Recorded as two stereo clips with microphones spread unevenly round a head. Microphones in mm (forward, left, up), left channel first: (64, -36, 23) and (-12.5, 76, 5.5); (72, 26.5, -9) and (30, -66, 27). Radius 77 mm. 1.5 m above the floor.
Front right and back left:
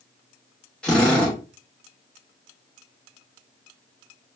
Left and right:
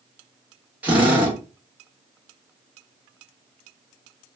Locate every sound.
0.8 s a drill: 125° right, 0.9 m